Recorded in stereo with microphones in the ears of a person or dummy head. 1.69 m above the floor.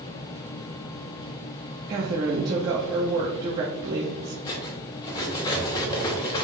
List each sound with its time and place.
1.9 s a woman speaking: 20° right (ahead or behind), 0.5 m
4.5 s cutlery clinking: 25° left (ahead or behind), 0.9 m